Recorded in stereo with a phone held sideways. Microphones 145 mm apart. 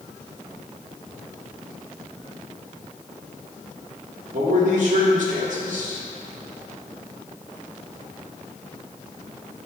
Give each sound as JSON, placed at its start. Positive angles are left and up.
{"t": 4.3, "sound": "a man speaking", "side_deg": -60, "distance_m": 1.8}